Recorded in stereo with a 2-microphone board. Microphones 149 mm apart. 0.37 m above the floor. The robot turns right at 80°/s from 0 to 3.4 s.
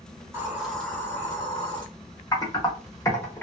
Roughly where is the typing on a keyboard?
Left.